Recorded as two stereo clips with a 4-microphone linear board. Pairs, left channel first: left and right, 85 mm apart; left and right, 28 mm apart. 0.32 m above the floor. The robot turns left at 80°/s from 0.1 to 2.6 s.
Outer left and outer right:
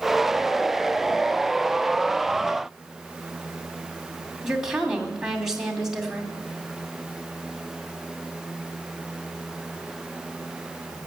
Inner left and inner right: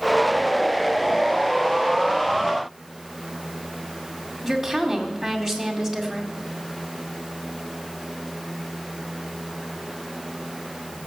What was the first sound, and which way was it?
A woman speaking, 5° right (ahead or behind).